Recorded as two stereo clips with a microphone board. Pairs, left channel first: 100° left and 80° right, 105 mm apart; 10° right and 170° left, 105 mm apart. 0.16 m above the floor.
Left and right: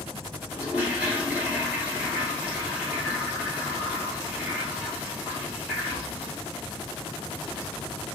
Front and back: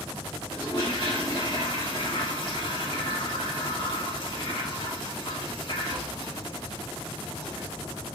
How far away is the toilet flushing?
About 1.6 m.